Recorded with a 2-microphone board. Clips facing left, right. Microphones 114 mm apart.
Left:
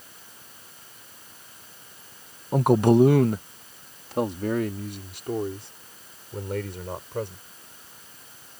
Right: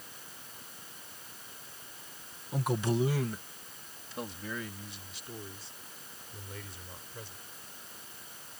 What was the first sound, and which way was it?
A man speaking, 50° left (ahead or behind).